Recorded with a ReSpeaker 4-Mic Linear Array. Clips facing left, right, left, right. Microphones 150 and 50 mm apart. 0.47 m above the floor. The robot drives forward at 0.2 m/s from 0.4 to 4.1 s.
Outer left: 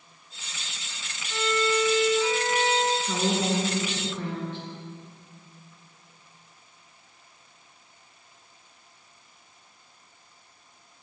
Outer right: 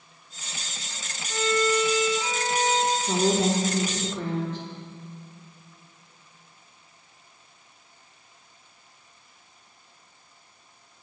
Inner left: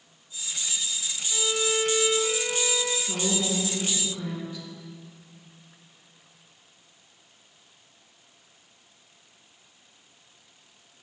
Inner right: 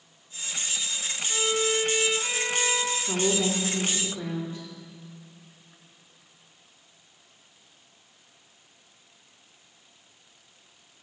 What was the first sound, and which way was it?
A violin, 35° right (ahead or behind).